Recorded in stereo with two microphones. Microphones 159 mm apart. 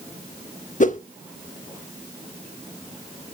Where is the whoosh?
55° left (ahead or behind), 0.6 m.